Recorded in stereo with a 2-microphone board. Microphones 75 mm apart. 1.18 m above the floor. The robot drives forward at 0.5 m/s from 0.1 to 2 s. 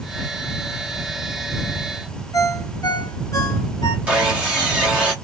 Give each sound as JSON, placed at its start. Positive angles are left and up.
{"t": 2.3, "sound": "a ringtone", "side_deg": 50, "distance_m": 0.7}
{"t": 4.1, "sound": "sawing", "side_deg": -20, "distance_m": 1.3}